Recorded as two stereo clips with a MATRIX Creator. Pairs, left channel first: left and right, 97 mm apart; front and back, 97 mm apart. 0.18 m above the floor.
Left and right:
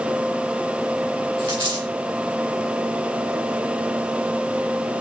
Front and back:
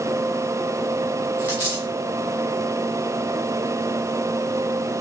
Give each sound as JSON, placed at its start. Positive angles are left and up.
{"t": 1.4, "sound": "a dropped coin", "azimuth_deg": -60, "distance_m": 4.0}